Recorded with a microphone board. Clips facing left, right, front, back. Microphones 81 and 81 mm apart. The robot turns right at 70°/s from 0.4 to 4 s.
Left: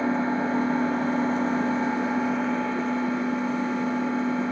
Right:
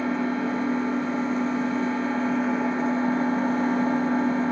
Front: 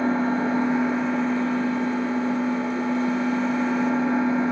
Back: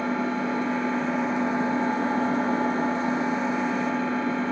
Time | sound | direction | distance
0.0 | an engine running | 40° left | 1.5 m